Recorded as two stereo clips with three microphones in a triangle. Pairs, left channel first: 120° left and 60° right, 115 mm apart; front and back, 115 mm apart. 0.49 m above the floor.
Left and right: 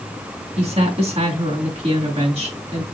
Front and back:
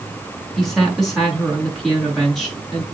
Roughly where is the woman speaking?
Right.